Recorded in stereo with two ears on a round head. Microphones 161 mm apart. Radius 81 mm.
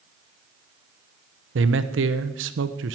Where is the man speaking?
70° right (ahead or behind), 0.9 m.